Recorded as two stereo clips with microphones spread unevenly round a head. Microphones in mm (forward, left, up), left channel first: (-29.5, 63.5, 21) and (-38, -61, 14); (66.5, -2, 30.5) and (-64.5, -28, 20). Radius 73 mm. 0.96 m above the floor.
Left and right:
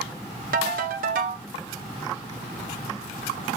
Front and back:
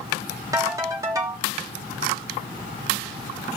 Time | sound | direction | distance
0.5 | a ringtone | 100° right | 1.6 m